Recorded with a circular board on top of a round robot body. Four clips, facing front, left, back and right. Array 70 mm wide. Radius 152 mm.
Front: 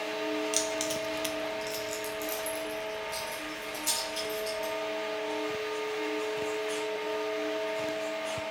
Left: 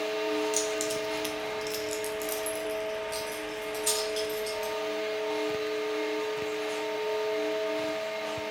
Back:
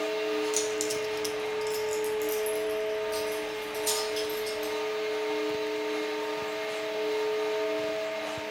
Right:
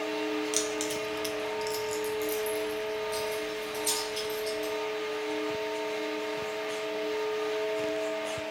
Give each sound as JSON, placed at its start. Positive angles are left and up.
{"t": 0.5, "sound": "keys jangling", "azimuth_deg": -45, "distance_m": 0.6}